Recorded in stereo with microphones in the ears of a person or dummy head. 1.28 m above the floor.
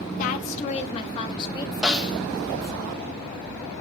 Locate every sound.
0.2 s a woman speaking: 45° left (ahead or behind), 1.2 m; by 2.8 s 15° left (ahead or behind), 2.5 m
1.8 s a snare drum: 5° right (ahead or behind), 1.3 m